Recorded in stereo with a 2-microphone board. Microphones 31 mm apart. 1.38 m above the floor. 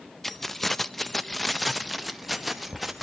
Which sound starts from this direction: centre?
Keys jangling, at 0.2 s.